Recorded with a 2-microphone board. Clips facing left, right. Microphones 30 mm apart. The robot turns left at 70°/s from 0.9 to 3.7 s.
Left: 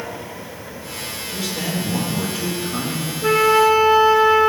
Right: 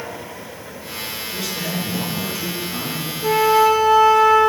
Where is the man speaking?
155° right, 3 m; by 3.1 s 75° left, 3 m.